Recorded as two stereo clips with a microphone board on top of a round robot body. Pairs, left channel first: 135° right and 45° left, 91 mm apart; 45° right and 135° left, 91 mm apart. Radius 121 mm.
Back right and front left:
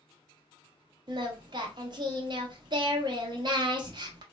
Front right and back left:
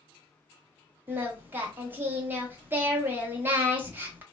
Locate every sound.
1.1 s singing: 70° left, 0.8 m